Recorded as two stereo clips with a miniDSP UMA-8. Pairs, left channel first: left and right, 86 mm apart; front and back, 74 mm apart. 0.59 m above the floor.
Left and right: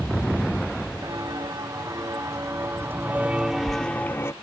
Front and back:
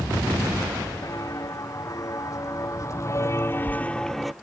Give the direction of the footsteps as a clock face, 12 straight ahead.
1 o'clock.